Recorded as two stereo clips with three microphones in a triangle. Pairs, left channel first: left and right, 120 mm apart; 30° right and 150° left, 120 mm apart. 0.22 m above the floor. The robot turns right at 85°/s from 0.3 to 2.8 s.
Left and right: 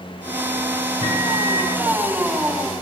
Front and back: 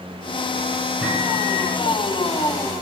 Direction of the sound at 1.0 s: 75° left.